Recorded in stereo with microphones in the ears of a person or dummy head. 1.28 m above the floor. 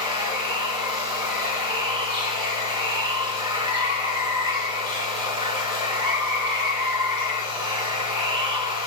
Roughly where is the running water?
Right.